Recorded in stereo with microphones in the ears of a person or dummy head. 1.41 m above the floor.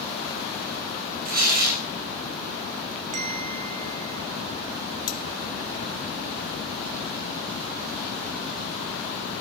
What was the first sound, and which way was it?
Tearing paper, 50° right (ahead or behind).